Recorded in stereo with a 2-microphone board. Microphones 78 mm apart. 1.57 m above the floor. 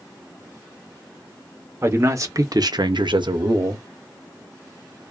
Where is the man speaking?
30° right (ahead or behind), 1.1 m; by 3.9 s 50° right (ahead or behind), 0.7 m.